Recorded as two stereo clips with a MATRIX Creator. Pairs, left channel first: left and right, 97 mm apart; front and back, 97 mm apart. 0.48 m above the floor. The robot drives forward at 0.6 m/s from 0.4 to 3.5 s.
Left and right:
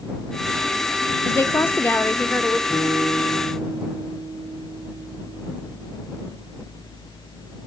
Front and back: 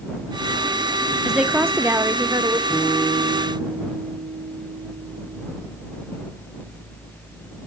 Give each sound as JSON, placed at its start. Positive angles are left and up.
{"t": 1.2, "sound": "a woman speaking", "azimuth_deg": 100, "distance_m": 0.8}
{"t": 2.7, "sound": "a guitar", "azimuth_deg": -50, "distance_m": 8.0}